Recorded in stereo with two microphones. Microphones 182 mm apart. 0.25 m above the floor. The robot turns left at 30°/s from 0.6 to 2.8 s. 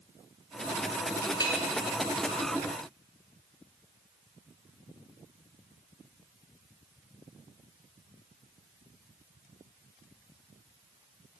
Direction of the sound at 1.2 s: 20° left (ahead or behind).